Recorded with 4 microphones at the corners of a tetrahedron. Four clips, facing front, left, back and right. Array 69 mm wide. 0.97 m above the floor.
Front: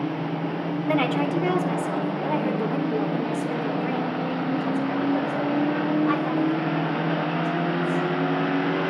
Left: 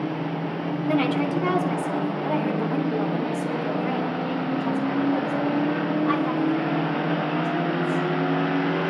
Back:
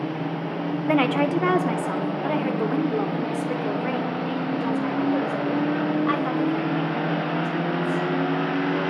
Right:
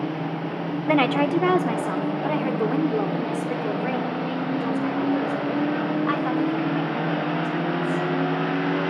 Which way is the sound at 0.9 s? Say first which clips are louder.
Right 3 dB, back 3 dB; 120° right.